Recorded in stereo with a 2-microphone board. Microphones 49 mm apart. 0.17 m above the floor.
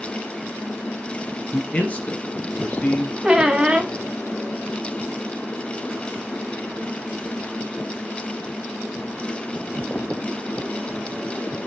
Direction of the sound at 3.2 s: 15° right (ahead or behind).